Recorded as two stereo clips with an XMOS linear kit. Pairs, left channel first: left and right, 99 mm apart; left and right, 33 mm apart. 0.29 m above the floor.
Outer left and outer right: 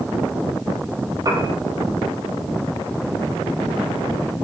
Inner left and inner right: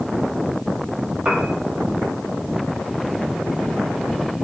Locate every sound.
1.2 s a piano: 35° right (ahead or behind), 2.5 m